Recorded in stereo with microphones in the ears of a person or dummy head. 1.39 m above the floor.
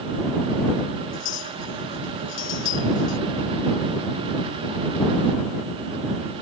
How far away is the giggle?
I don't hear a giggle.